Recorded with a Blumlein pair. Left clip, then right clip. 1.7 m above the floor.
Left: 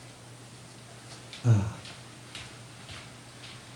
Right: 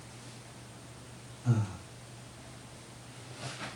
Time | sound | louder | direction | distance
1.4 | breathing | left 4 dB | 50° left | 0.8 m